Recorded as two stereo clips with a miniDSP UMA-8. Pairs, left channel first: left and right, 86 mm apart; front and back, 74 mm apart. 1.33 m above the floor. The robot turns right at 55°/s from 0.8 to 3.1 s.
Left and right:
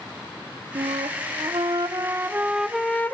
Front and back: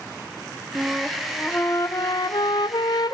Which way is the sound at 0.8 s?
105° right.